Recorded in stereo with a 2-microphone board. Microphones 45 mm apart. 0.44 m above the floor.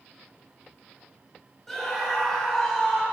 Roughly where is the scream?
Centre.